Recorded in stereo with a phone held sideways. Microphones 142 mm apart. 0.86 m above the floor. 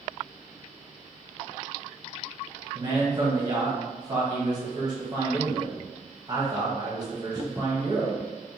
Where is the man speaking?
30° right (ahead or behind), 1.0 m.